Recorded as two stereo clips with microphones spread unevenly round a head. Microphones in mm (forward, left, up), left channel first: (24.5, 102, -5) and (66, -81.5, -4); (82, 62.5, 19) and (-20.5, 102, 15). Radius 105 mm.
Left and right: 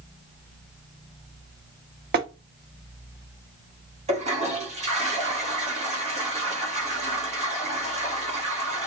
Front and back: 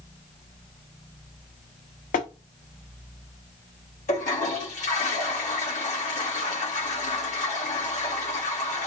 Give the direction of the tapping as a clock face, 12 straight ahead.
1 o'clock.